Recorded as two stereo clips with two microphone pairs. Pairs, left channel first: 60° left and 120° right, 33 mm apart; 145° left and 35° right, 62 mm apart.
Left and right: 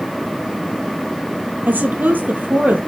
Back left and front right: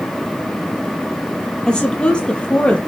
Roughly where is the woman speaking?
Behind right.